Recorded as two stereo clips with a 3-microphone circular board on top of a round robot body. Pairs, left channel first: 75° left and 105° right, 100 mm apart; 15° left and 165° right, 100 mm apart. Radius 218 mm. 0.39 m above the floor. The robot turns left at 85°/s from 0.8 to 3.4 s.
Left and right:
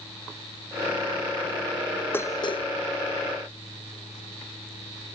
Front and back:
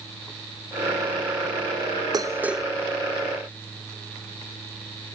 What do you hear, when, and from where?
2.1 s dishes clattering: 145° left; by 2.6 s 100° left